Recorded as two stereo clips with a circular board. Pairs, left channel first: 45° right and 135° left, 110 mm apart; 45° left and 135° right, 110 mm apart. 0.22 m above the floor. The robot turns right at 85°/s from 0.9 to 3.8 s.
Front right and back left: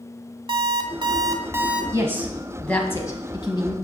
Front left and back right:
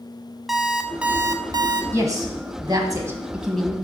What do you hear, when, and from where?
0.5 s an alarm clock: 140° left, 0.8 m; by 1.8 s 145° right, 0.8 m
1.9 s a woman speaking: 175° left, 1.3 m; by 3.7 s 30° right, 1.3 m